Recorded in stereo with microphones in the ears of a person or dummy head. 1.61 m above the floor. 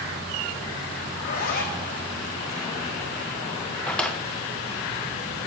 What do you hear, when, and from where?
1.1 s a zipper: 50° left (ahead or behind), 1.2 m
3.9 s a drawer: 10° left (ahead or behind), 0.8 m